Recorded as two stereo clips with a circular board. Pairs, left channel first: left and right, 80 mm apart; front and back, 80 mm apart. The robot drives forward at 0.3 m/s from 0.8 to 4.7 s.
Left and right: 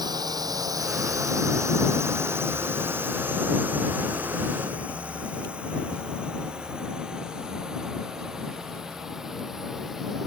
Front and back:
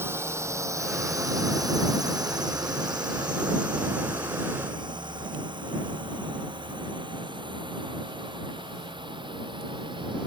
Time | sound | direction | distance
0.0 | a drone | 120° right | ?